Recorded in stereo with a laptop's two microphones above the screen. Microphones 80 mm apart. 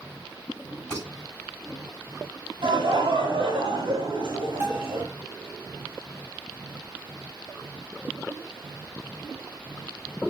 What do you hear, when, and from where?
0.9 s dishes clattering: 10° left (ahead or behind), 4 m
2.6 s laughter: 75° right (ahead or behind), 2 m
4.6 s a bell: 25° right (ahead or behind), 3 m